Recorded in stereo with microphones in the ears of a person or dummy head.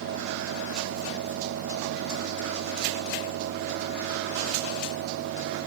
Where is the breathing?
No breathing in this recording.